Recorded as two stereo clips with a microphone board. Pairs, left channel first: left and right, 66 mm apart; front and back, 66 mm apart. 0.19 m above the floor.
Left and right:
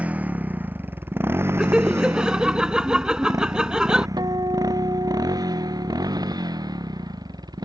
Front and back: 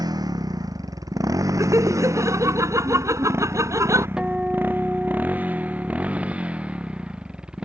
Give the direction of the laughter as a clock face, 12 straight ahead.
5 o'clock.